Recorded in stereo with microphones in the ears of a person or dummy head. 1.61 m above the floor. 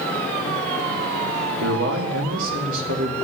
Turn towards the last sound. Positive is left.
turn(degrees=-80)